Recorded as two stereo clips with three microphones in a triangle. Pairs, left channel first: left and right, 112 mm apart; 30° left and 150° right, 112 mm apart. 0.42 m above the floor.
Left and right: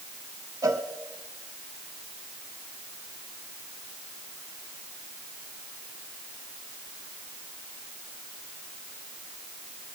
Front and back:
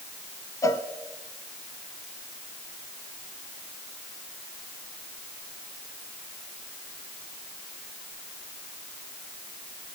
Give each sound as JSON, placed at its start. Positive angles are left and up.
{"t": 0.6, "sound": "a cowbell", "azimuth_deg": -30, "distance_m": 0.7}